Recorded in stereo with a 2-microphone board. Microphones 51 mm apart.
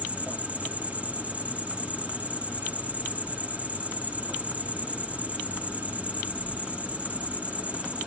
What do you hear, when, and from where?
0.0 s an insect: 25° right (ahead or behind), 0.7 m